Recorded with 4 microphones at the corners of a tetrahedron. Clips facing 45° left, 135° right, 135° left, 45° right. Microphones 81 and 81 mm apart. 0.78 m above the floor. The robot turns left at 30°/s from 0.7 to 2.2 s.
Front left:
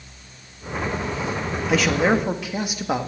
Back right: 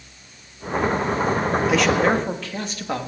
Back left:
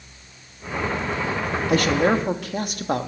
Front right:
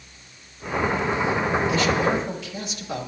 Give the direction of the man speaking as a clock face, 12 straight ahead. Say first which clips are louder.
Front left 1 dB, back left 7 dB; 7 o'clock.